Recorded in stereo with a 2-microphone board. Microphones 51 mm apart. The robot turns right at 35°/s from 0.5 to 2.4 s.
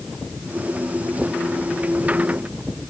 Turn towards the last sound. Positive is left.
No sound to turn to.